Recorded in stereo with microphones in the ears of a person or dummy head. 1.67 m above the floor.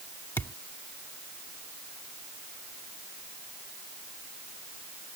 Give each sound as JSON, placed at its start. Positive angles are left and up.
{"t": 0.4, "sound": "a thud", "side_deg": 15}